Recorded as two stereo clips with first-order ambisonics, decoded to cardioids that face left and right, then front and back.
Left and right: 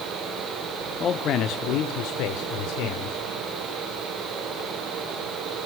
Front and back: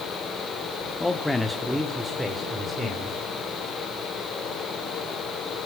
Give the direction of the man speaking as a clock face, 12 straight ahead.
10 o'clock.